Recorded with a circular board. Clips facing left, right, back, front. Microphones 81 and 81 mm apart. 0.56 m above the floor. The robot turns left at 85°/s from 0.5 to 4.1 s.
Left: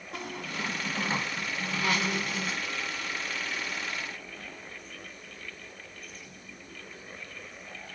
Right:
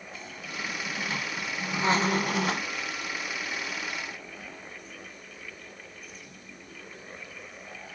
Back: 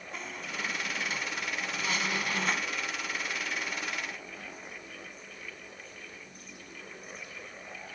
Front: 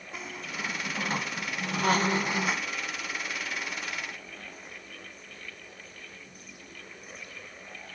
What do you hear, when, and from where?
0.1 s a squeak: 85° left, 0.7 m; by 2.7 s 100° right, 0.7 m